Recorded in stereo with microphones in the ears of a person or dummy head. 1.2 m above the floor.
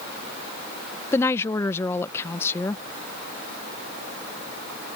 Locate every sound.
1.1 s a woman speaking: 15° left (ahead or behind)